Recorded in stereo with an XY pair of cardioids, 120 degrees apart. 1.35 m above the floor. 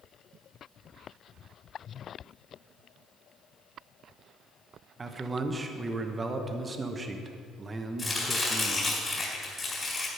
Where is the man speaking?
25° right, 0.8 m.